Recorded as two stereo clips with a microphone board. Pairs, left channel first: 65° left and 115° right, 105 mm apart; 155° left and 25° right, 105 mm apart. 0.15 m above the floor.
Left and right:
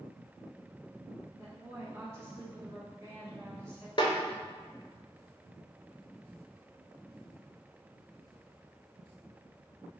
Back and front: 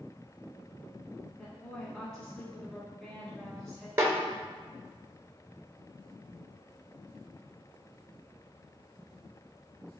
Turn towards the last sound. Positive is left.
turn(degrees=40)